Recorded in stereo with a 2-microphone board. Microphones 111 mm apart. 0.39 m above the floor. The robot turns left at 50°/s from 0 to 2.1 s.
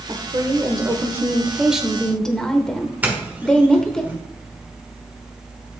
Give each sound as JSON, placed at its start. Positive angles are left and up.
{"t": 0.1, "sound": "a woman speaking", "azimuth_deg": -90, "distance_m": 0.9}
{"t": 3.0, "sound": "a doorbell", "side_deg": -15, "distance_m": 1.3}